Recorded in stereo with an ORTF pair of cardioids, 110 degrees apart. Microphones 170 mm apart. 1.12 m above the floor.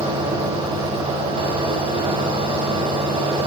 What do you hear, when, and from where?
0.0 s a fan: 30° right, 7.5 m